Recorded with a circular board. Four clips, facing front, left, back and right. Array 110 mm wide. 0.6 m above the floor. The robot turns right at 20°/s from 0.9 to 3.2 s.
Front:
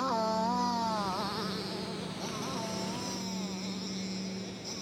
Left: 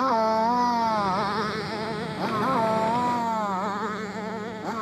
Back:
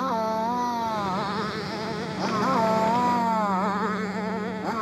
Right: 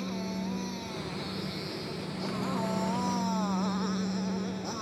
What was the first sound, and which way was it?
A motorcycle, 105° left.